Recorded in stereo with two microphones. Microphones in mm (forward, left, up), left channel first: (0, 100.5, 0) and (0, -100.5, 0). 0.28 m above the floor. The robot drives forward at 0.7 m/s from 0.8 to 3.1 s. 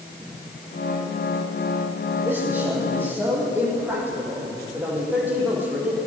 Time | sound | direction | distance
2.2 | a man speaking | 10° right (ahead or behind) | 8.5 m